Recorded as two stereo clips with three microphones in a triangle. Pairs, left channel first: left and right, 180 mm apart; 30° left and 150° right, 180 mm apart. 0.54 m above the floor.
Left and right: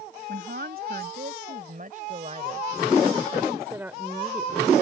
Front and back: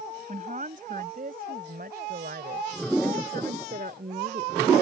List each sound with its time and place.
0.3 s a woman speaking: 110° right; by 4.7 s 170° left